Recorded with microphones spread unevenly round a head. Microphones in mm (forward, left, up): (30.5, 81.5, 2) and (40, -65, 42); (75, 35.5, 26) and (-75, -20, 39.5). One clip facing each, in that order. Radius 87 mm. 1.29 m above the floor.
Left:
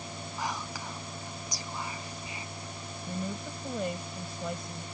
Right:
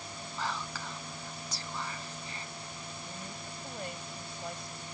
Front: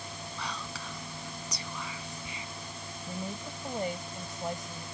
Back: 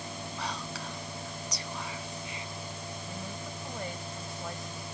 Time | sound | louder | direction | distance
0.4 | whispering | left 1 dB, back 1 dB | 15° left | ?
3.1 | a woman speaking | left 8 dB, front 6 dB | 90° left | ?